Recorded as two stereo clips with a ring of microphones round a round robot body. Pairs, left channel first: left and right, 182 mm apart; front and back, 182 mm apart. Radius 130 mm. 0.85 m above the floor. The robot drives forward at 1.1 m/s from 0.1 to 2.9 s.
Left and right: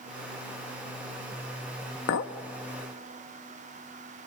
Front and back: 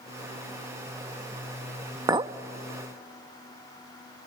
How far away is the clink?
About 0.7 m.